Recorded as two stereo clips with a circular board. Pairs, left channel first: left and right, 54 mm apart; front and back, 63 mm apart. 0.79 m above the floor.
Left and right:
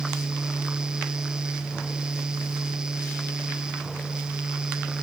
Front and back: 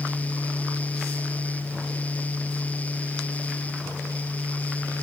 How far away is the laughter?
No laughter in this recording.